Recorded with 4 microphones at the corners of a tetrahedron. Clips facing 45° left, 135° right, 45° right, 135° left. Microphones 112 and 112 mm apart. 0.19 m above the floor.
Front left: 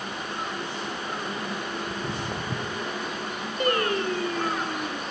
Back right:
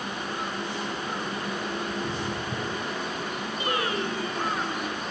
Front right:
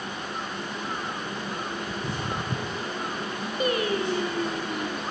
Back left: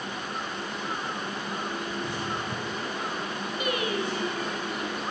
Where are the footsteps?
10° right, 1.2 m; by 2.9 s straight ahead, 1.8 m.